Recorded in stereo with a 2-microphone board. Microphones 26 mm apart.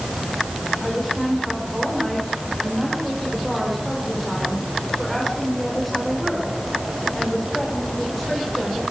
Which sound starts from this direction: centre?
A woman speaking, at 0.8 s.